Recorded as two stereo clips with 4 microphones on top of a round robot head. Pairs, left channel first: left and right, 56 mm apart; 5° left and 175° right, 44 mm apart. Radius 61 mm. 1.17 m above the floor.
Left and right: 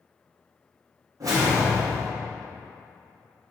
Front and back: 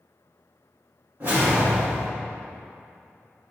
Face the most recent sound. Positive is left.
turn(degrees=-115)